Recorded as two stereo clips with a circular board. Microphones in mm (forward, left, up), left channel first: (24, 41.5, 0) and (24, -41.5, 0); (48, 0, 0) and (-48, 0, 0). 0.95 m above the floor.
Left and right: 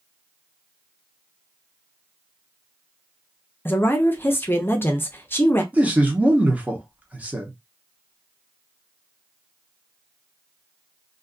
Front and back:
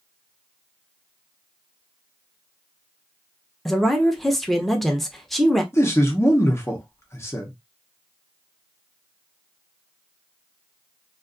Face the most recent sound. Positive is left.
turn(degrees=-30)